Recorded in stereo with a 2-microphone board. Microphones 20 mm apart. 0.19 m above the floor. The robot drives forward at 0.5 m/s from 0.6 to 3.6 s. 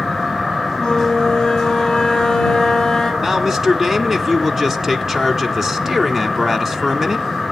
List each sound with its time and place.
0.8 s a flute: 40° left (ahead or behind), 6 m; by 3.1 s 35° left (ahead or behind), 7 m
3.2 s a man speaking: 25° right (ahead or behind), 1.8 m